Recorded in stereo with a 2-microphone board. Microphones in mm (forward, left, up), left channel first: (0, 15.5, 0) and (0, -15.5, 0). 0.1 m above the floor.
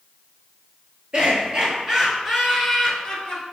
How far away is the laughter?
About 1.5 m.